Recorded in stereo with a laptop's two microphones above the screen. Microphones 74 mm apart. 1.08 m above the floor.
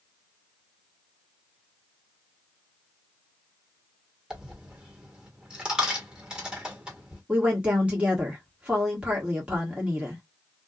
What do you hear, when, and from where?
4.3 s a dropped coin: 10° right (ahead or behind), 1.3 m
7.3 s a woman speaking: 15° right (ahead or behind), 1.2 m